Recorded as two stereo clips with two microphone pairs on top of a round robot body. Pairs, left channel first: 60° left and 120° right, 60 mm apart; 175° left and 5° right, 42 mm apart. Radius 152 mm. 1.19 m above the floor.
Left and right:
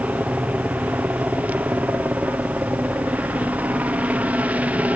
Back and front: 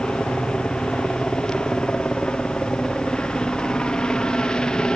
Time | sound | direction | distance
0.0 | a helicopter | 145° right | ?